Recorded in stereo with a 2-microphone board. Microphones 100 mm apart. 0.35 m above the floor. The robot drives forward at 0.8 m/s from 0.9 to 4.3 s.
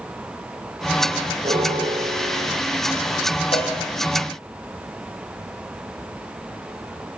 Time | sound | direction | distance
1.4 | a piano | 80° right | 7.5 m
3.5 | a cowbell | 75° left (ahead or behind) | 6 m